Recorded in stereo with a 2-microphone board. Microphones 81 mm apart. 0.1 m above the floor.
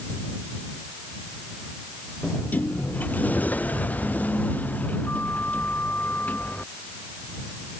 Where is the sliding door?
20° left (ahead or behind).